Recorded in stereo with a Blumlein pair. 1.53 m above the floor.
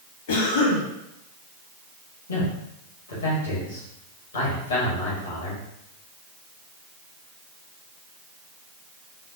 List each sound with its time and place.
0.3 s a cough: 60° left, 1.1 m
2.3 s a man speaking: 70° left, 1.1 m